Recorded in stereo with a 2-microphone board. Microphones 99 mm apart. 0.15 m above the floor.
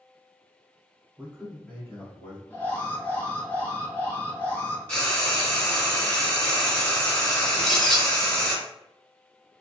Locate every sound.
1.2 s a man speaking: 20° right (ahead or behind), 1.1 m; by 2.4 s 45° left (ahead or behind), 1.5 m
2.5 s an alarm: 20° left (ahead or behind), 1.4 m
4.9 s frying: 15° left (ahead or behind), 1.6 m
7.5 s a bird: 5° left (ahead or behind), 1.2 m